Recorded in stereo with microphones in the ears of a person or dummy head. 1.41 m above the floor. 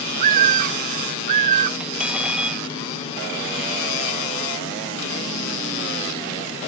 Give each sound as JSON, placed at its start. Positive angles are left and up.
{"t": 0.2, "sound": "a bird", "side_deg": -45}
{"t": 1.8, "sound": "cutlery clinking", "side_deg": -5}